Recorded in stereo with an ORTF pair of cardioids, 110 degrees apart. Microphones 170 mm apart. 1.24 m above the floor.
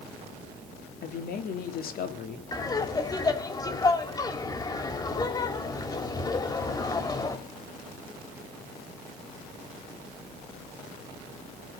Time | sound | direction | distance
1.0 | a man speaking | 60° left | 2.5 m
2.5 | laughter | 20° left | 3.5 m